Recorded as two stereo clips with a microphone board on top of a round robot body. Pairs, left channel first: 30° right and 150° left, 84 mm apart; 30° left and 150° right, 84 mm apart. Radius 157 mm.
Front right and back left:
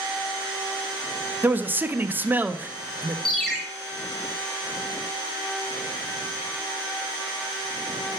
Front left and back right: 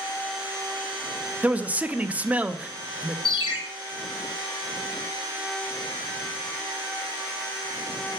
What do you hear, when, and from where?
1.4 s a man speaking: 165° left, 0.7 m
3.2 s a ringtone: 60° left, 1.7 m